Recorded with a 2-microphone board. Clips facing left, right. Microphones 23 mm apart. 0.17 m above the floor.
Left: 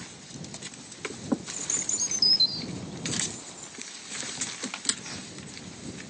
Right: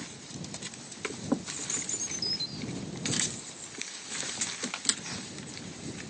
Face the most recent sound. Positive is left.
turn(degrees=-20)  # may be behind; listen again after turning